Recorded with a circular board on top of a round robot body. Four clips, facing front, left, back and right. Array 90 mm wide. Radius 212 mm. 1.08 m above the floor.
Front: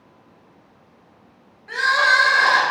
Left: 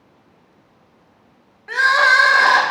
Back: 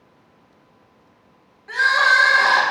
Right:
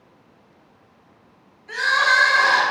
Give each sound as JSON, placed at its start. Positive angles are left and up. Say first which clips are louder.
{"t": 1.7, "sound": "crying", "louder": "left 5 dB, back 1 dB", "azimuth_deg": 95, "distance_m": 2.0}